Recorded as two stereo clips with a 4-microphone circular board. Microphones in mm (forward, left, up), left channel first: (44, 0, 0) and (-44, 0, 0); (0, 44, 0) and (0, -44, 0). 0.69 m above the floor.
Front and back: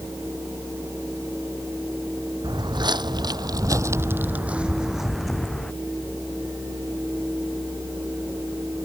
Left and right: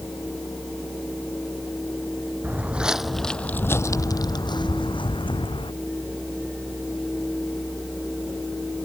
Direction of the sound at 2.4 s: 155° right.